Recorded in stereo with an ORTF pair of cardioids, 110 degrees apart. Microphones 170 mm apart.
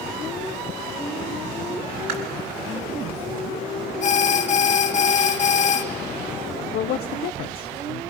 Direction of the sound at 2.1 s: 65° right.